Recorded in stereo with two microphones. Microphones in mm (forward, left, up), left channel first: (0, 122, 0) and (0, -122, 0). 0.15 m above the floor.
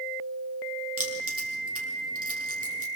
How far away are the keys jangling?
About 3 m.